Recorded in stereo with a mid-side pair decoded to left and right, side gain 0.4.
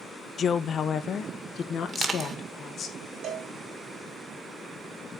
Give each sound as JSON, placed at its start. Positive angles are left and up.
{"t": 0.4, "sound": "a woman speaking", "azimuth_deg": 55, "distance_m": 0.7}
{"t": 1.9, "sound": "crushing", "azimuth_deg": -40, "distance_m": 2.0}
{"t": 3.2, "sound": "a cowbell", "azimuth_deg": -70, "distance_m": 3.5}